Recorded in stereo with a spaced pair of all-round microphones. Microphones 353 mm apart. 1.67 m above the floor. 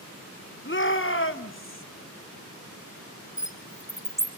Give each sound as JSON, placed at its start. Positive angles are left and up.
{"t": 0.7, "sound": "a shout", "side_deg": 35, "distance_m": 1.0}
{"t": 3.4, "sound": "a bird", "side_deg": 10, "distance_m": 1.6}